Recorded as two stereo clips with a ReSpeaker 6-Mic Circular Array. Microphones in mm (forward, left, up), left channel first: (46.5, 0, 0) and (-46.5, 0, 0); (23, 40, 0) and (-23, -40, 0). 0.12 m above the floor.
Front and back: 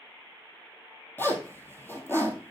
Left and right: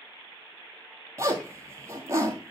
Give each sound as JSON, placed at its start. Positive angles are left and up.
{"t": 1.2, "sound": "a zipper", "azimuth_deg": -65, "distance_m": 1.4}